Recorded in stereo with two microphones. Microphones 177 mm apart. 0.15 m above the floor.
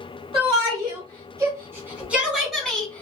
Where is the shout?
30° right (ahead or behind), 1.9 m; by 3.0 s 10° left (ahead or behind), 1.4 m.